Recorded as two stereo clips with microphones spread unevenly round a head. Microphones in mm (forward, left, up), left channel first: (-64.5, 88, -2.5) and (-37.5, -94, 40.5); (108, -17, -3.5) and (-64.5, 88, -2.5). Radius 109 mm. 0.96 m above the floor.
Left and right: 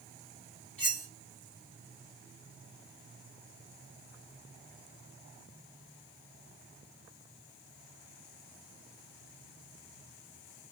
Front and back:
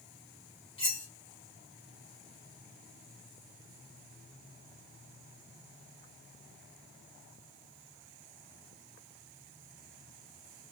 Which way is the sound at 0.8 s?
35° left.